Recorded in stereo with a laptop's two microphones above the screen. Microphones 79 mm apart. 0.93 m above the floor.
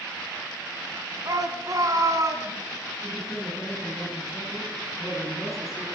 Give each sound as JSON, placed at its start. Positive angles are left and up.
{"t": 1.2, "sound": "a shout", "side_deg": -50, "distance_m": 6.5}
{"t": 3.0, "sound": "a man speaking", "side_deg": 0, "distance_m": 8.0}